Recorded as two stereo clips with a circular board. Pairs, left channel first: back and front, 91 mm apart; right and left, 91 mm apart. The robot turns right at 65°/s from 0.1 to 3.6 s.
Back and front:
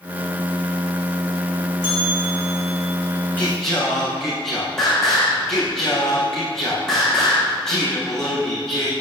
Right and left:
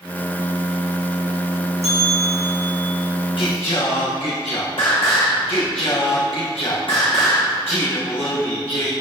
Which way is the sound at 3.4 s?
110° right.